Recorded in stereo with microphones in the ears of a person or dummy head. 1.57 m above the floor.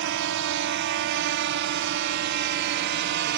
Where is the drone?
60° right (ahead or behind); by 3.4 s 50° right (ahead or behind).